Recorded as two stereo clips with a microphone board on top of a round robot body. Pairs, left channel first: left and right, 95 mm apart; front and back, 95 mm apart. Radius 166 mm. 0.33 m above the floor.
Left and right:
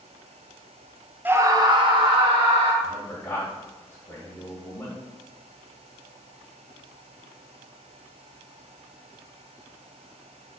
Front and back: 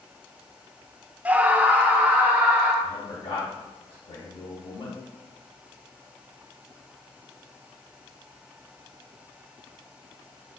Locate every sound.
1.2 s a scream: 130° right, 0.8 m; by 2.7 s 105° right, 2 m
2.8 s a man speaking: 20° left, 2.5 m